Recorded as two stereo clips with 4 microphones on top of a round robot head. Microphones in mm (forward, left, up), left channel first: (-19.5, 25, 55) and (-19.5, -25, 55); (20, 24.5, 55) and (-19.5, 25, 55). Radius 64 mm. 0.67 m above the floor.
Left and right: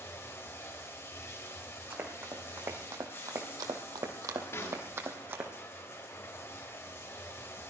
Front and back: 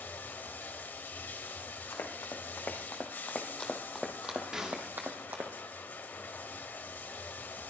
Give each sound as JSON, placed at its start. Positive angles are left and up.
{"t": 0.0, "sound": "running water", "azimuth_deg": 40, "distance_m": 1.3}
{"t": 1.9, "sound": "running footsteps", "azimuth_deg": -30, "distance_m": 3.0}
{"t": 4.5, "sound": "a snare drum", "azimuth_deg": 105, "distance_m": 1.9}